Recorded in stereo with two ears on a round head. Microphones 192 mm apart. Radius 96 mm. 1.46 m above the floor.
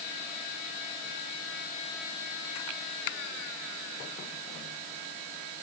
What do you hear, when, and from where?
Only background noise.